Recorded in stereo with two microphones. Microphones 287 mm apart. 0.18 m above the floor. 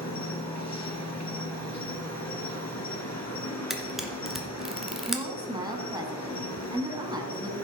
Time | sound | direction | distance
0.0 | an insect | 65° left (ahead or behind) | 1.5 m
3.7 | a camera shutter | centre (ahead or behind) | 1.4 m
5.1 | a woman speaking | 15° right (ahead or behind) | 1.7 m